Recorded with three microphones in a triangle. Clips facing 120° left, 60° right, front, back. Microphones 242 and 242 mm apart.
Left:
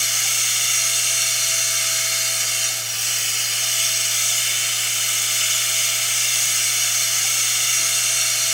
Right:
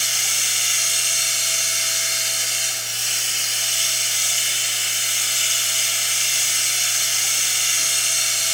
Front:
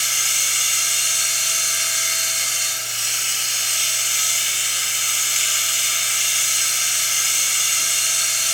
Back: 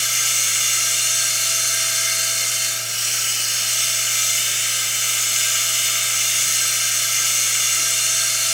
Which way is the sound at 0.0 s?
135° right.